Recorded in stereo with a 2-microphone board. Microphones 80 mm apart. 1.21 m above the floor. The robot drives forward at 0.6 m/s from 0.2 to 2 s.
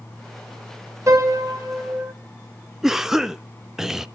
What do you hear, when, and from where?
1.1 s a piano: 40° right (ahead or behind), 1.6 m; by 2.1 s 30° right (ahead or behind), 2 m
2.8 s a cough: 5° right (ahead or behind), 0.5 m